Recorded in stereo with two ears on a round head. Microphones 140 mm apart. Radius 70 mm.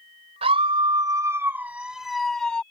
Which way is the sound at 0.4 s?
40° right (ahead or behind).